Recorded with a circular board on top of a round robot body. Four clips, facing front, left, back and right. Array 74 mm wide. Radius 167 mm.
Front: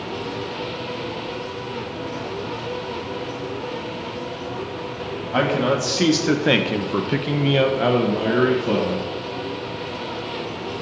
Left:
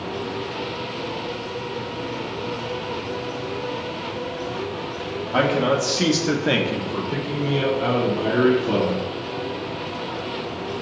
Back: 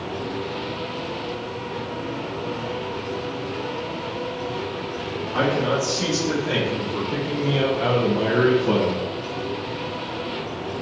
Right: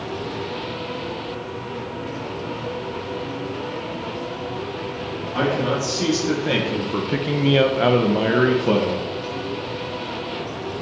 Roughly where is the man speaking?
Ahead left.